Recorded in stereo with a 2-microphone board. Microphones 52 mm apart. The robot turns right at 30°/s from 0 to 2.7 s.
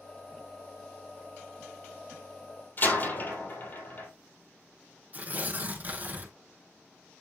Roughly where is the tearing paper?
Right.